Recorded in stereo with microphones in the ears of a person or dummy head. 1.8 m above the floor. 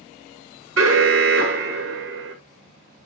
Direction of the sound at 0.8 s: 60° right (ahead or behind).